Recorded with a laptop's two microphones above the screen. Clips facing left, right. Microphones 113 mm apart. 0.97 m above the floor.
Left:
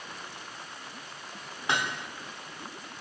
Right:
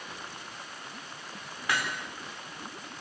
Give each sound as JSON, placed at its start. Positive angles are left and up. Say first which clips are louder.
{"t": 1.7, "sound": "hammering", "louder": "left 1 dB", "side_deg": 25, "distance_m": 2.5}